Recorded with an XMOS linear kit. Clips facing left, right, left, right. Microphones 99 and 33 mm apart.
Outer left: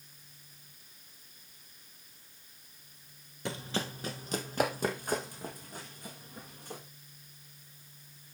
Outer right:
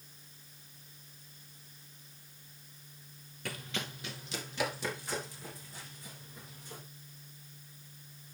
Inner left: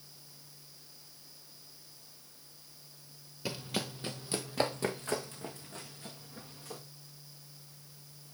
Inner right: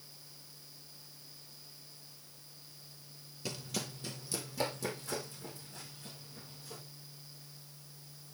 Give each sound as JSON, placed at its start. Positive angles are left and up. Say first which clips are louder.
{"t": 3.5, "sound": "running footsteps", "louder": "outer left 5 dB, inner left 4 dB", "side_deg": 20, "distance_m": 0.6}